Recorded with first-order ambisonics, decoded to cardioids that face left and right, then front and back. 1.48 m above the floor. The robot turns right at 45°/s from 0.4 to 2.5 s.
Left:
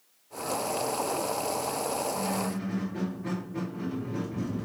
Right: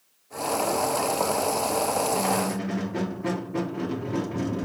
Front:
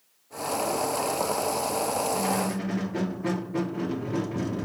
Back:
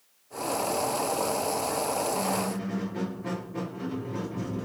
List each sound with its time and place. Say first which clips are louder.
2.1 s a squeak: right 6 dB, front 2 dB; 65° right, 0.6 m; by 4.7 s 50° right, 0.6 m